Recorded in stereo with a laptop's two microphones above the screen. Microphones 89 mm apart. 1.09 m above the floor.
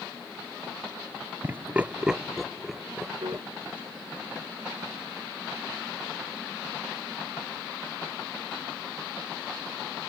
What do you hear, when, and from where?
1.4 s laughter: 20° right (ahead or behind); by 3.5 s 5° left (ahead or behind)
3.2 s a piano: 70° right (ahead or behind)